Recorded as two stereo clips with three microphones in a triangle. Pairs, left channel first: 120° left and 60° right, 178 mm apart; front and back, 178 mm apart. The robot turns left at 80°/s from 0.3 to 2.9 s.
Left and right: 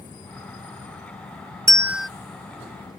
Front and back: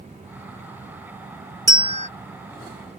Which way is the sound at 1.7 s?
120° right.